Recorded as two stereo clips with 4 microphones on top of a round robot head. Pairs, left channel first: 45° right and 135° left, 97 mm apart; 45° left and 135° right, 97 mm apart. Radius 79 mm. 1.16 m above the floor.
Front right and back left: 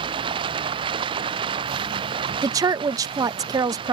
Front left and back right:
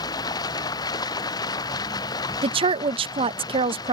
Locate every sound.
0.0 s running water: 100° left
2.4 s a woman speaking: 170° right